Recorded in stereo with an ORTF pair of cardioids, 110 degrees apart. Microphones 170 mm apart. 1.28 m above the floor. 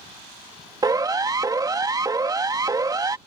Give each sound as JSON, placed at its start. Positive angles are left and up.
{"t": 0.8, "sound": "a siren", "azimuth_deg": -20}